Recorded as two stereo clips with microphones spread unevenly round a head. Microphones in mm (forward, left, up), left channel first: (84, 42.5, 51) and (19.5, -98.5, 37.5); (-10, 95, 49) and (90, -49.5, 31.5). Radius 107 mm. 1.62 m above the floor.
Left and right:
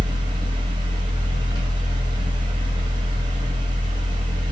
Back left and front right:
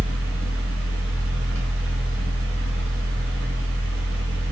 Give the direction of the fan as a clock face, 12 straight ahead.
2 o'clock.